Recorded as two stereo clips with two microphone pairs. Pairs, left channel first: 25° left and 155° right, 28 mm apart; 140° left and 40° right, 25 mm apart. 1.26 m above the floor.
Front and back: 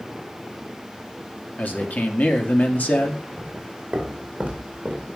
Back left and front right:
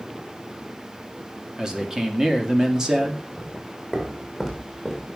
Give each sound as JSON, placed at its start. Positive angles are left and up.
{"t": 1.6, "sound": "a man speaking", "azimuth_deg": 30, "distance_m": 2.5}
{"t": 3.4, "sound": "footsteps", "azimuth_deg": -120, "distance_m": 4.0}